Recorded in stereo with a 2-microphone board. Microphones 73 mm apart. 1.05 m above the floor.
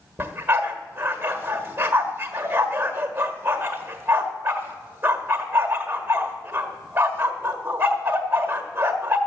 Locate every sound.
0.2 s a dog barking: 35° right (ahead or behind), 1.5 m